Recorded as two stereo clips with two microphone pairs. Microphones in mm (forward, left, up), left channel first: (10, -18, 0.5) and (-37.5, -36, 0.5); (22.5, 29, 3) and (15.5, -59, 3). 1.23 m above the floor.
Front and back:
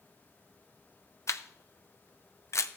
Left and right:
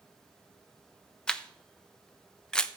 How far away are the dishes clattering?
No dishes clattering in this recording.